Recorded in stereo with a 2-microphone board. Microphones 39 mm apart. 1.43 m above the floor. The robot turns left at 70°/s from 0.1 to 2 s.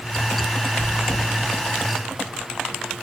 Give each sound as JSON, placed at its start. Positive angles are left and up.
{"t": 0.8, "sound": "chewing", "side_deg": 20, "distance_m": 6.0}